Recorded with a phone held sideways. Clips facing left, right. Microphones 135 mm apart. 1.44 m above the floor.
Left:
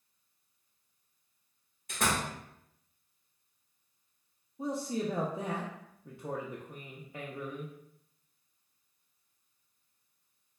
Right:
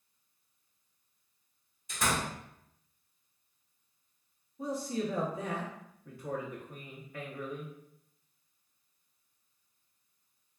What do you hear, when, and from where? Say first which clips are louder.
1.9 s a door slam: even; 60° left (ahead or behind), 1.0 m
4.6 s a man speaking: left 1 dB; 25° left (ahead or behind), 0.5 m